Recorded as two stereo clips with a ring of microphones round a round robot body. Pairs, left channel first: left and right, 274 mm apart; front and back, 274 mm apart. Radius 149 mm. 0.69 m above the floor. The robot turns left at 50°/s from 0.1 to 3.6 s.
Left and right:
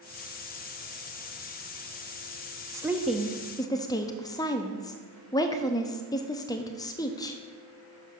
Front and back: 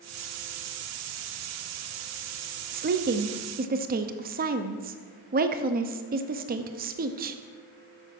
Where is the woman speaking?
160° right, 0.5 m; by 7.4 s 155° left, 0.5 m.